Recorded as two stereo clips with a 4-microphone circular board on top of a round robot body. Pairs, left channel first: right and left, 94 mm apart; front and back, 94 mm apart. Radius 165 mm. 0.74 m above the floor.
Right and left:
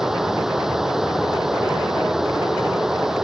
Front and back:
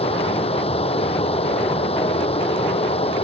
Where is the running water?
5° left.